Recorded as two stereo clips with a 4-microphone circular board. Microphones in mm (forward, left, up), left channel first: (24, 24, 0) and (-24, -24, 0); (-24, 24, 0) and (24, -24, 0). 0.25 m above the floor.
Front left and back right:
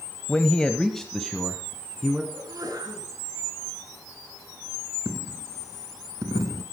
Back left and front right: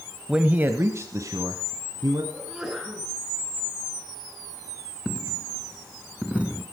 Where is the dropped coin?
115° right, 1.1 m.